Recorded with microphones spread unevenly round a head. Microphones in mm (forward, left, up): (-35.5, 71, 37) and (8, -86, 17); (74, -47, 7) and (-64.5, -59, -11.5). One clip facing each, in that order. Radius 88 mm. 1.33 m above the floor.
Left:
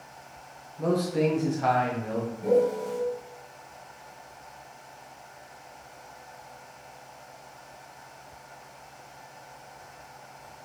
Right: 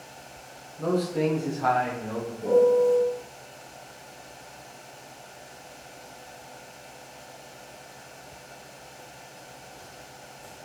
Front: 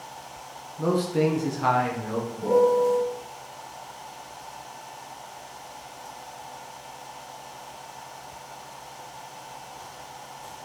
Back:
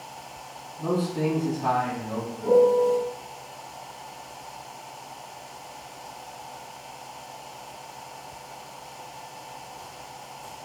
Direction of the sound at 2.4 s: 30° right.